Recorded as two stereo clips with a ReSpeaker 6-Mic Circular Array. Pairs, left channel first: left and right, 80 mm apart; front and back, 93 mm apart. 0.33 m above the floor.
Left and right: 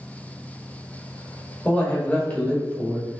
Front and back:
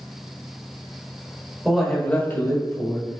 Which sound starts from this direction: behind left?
A man speaking, at 1.6 s.